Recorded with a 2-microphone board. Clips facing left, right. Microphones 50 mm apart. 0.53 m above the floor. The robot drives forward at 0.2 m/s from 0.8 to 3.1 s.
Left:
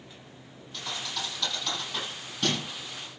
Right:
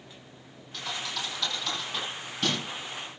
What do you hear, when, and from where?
0.7 s a thud: 5° left (ahead or behind), 8 m